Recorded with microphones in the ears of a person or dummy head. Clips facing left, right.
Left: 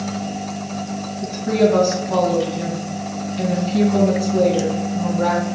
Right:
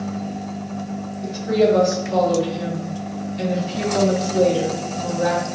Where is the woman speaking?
80° left, 3 m.